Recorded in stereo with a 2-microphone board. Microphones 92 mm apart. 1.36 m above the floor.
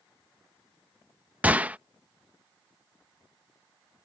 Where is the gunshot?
15° right (ahead or behind).